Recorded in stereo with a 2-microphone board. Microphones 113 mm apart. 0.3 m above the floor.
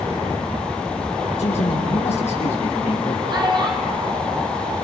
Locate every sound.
1.4 s a man speaking: 80° left, 7 m
3.3 s a child speaking: 40° right (ahead or behind), 7 m